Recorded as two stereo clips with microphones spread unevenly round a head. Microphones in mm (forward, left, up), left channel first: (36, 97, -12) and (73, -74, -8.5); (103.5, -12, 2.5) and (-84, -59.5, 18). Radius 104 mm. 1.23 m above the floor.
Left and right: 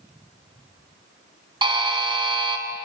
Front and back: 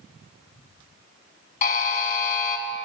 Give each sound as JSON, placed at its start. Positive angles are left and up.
{"t": 1.6, "sound": "a buzzer", "azimuth_deg": -25, "distance_m": 1.7}